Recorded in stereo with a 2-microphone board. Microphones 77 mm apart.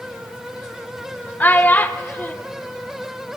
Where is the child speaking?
20° left (ahead or behind), 0.6 m.